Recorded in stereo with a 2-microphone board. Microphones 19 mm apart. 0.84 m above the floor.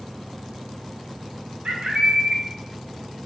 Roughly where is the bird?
Right.